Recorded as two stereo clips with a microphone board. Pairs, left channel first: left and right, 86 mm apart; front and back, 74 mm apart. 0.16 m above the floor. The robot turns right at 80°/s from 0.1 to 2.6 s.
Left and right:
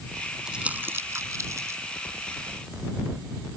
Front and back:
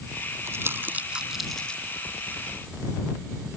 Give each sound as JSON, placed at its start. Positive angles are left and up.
{"t": 0.5, "sound": "crumpling", "azimuth_deg": -170}